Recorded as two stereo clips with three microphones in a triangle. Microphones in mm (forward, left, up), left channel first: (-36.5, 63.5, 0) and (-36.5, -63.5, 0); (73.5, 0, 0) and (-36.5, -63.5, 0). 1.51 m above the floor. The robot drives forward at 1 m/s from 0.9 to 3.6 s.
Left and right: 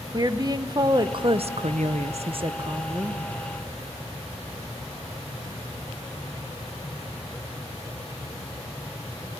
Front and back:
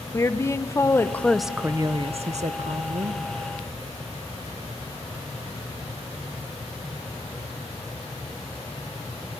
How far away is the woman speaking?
About 1.1 m.